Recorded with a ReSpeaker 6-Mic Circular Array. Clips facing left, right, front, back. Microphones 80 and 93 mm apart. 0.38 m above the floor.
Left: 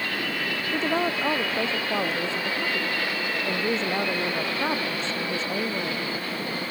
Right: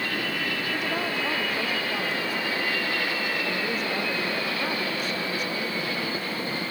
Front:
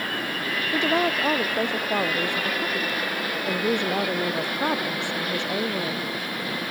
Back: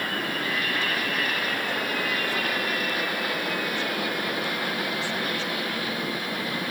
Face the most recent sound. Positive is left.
turn(degrees=25)